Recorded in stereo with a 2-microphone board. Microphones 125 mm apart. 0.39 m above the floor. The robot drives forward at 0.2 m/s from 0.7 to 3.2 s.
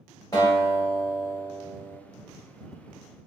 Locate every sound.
0.3 s a guitar: 30° left (ahead or behind), 1.9 m; by 2.0 s 25° left (ahead or behind), 2 m